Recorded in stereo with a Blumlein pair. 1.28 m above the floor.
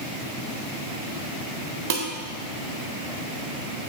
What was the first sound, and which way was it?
Dishes clattering, 50° right.